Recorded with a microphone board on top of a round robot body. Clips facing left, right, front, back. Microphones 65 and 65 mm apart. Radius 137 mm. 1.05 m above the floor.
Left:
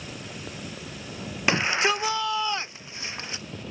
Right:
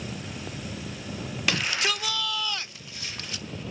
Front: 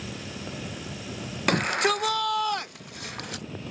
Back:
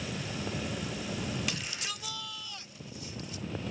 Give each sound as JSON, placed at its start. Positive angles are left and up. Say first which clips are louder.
{"t": 1.5, "sound": "a shout", "louder": "left 5 dB, front 15 dB", "azimuth_deg": 25}